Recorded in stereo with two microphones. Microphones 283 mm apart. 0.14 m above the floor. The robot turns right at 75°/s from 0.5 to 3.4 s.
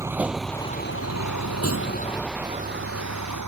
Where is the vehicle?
10° right (ahead or behind); by 3.5 s 75° right (ahead or behind).